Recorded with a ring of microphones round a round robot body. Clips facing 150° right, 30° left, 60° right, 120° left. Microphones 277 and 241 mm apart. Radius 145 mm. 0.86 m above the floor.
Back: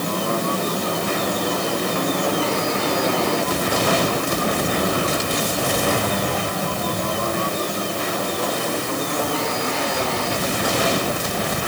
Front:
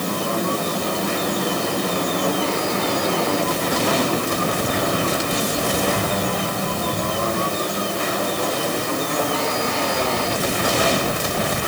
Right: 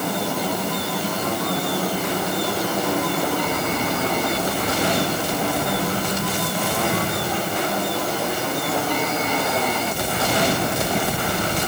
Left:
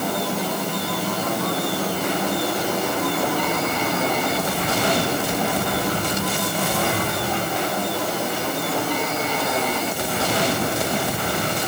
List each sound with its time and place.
Only background noise.